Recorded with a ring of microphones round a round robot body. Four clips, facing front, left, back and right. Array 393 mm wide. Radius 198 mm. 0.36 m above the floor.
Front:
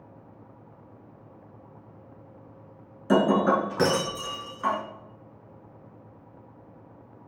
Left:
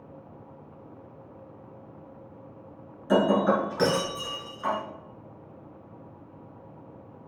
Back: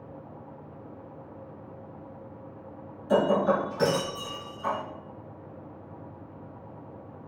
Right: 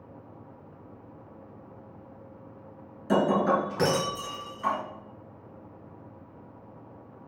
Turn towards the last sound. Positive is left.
turn(degrees=-10)